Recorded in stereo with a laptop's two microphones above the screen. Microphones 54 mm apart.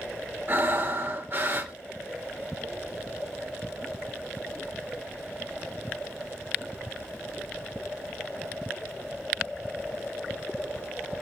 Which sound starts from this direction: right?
Breathing, at 0.5 s.